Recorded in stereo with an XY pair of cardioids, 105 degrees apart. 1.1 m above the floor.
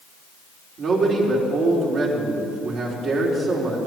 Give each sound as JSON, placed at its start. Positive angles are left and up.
{"t": 0.8, "sound": "a man speaking", "azimuth_deg": -60, "distance_m": 4.0}